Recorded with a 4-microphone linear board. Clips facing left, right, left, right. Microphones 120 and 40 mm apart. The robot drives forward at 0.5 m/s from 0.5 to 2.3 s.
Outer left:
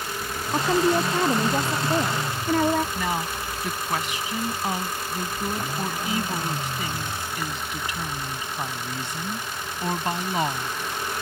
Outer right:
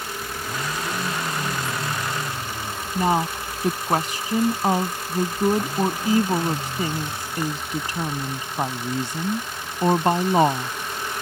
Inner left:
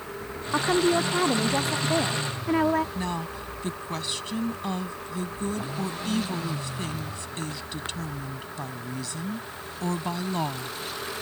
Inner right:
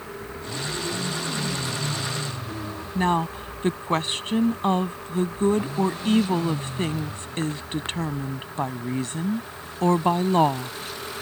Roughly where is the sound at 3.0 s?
Right.